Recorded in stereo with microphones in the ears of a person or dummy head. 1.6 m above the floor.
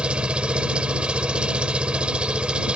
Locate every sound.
0.0 s an engine running: 5° right (ahead or behind)